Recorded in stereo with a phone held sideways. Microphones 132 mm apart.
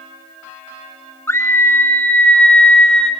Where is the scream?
20° left (ahead or behind), 2.5 m; by 3.1 s 5° left (ahead or behind), 3.5 m.